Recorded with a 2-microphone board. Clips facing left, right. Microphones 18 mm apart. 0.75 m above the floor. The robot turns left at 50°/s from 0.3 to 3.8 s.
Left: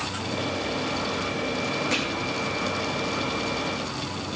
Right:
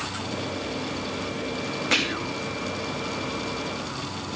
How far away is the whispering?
About 0.7 m.